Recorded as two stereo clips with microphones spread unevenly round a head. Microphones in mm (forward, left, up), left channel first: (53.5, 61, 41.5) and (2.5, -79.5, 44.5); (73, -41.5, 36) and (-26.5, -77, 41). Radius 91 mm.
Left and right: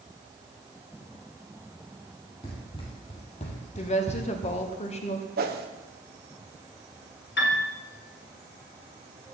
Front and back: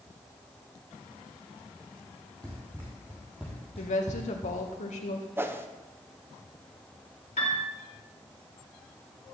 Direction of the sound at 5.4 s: 90° right.